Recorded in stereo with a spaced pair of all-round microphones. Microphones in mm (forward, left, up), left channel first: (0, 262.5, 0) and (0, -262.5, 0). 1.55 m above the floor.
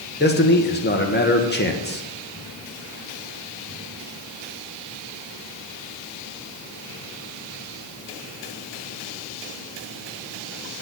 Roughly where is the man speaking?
Centre.